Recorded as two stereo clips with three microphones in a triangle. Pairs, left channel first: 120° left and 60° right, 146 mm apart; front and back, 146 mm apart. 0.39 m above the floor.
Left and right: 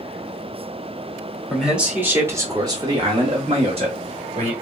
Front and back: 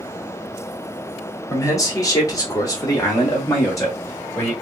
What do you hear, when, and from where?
1.5 s a man speaking: 25° left, 1.3 m; by 4.5 s 65° right, 2.0 m